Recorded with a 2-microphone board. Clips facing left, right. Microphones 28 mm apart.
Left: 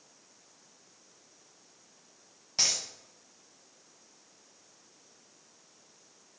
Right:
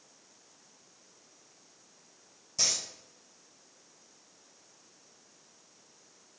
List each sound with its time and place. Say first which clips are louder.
2.6 s a dropped coin: left 1 dB; 60° left (ahead or behind), 1.0 m